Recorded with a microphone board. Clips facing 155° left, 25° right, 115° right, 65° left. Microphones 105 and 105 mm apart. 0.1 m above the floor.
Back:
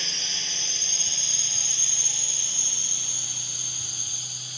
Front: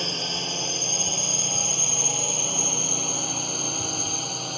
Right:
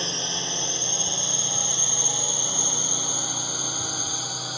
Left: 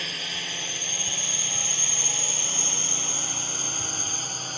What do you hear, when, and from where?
0.0 s a drone: 55° right; by 4.6 s 30° right